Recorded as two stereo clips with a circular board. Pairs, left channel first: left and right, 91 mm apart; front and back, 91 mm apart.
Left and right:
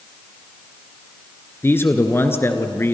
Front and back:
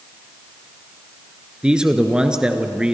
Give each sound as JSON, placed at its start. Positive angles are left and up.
{"t": 1.6, "sound": "a man speaking", "azimuth_deg": 110, "distance_m": 1.6}